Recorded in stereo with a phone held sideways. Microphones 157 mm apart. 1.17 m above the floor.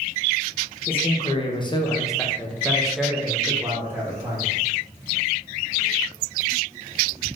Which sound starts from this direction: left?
A man speaking, at 0.9 s.